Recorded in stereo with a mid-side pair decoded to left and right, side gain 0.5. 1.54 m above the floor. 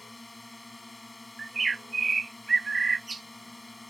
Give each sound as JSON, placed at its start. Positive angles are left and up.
{"t": 0.0, "sound": "a drone", "azimuth_deg": 15}
{"t": 1.4, "sound": "a bird", "azimuth_deg": -25}